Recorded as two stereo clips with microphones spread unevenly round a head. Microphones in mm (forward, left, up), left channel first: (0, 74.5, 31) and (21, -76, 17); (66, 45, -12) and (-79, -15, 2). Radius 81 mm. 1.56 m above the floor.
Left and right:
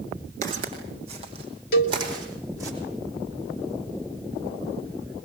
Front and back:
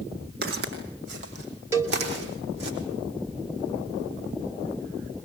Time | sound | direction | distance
0.4 | footsteps | 130° right | 6 m
1.7 | a cowbell | 130° left | 2.5 m